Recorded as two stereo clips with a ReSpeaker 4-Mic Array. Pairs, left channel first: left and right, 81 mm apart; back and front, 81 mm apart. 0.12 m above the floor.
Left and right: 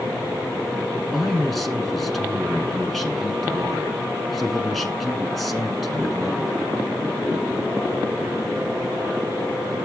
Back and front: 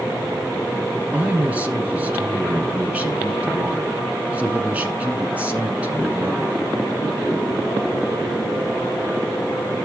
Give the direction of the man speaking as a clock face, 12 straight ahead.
12 o'clock.